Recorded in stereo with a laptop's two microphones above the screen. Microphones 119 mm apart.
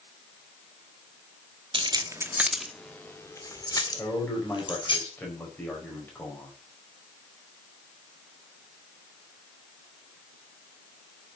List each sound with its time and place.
1.7 s keys jangling: 45° right (ahead or behind), 1.1 m; by 5.0 s 45° left (ahead or behind), 3 m
4.0 s a man speaking: 15° left (ahead or behind), 4.5 m